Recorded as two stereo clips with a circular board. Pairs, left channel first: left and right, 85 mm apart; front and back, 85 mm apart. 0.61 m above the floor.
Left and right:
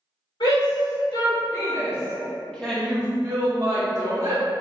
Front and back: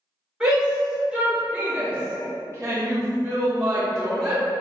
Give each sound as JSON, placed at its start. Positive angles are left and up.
{"t": 0.4, "sound": "a shout", "azimuth_deg": 100, "distance_m": 1.9}